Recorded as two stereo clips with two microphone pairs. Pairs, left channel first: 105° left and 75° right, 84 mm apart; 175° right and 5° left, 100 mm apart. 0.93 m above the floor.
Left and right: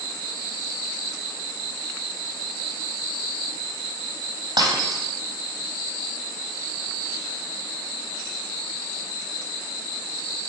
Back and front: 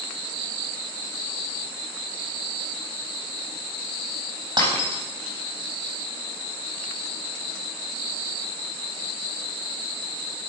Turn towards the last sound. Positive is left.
turn(degrees=-45)